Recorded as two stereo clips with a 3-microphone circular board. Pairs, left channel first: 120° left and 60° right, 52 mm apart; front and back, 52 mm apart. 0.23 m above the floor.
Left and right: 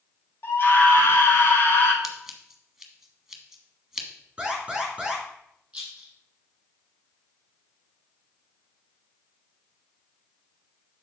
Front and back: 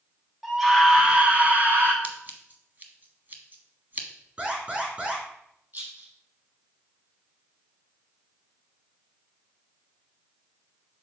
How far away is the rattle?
About 4.5 m.